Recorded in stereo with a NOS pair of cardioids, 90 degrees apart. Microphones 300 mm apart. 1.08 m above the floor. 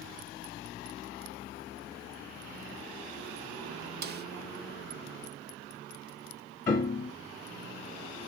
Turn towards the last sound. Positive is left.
turn(degrees=30)